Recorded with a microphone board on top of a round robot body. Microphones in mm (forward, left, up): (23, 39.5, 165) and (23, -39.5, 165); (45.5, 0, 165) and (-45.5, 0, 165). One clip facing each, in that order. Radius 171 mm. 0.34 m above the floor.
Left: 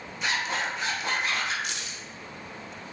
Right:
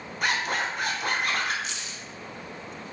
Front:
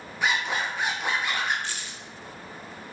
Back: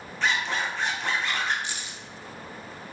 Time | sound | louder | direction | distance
0.2 | a zipper | right 2 dB, even | 75° right | 1.0 m
1.6 | keys jangling | left 1 dB, even | 110° left | 0.8 m